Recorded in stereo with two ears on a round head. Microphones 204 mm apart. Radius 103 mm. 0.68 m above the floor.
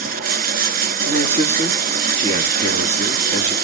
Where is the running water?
40° right (ahead or behind), 0.8 m.